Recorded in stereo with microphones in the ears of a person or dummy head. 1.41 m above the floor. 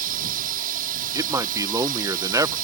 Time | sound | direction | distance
0.0 | a drone | 45° right (ahead or behind) | ?
1.1 | a man speaking | 10° right (ahead or behind) | ?